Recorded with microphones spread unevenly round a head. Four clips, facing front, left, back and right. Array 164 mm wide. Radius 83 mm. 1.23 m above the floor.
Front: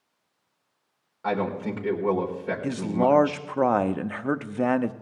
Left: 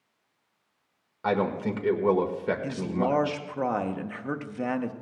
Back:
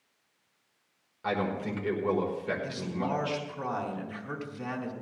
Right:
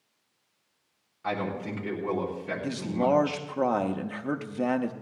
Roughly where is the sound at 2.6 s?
Ahead.